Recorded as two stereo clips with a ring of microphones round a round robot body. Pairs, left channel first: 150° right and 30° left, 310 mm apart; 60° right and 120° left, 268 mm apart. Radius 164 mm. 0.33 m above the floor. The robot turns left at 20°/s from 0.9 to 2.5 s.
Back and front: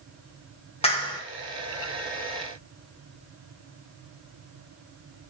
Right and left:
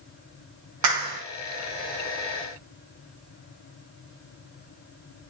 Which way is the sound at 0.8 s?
140° left.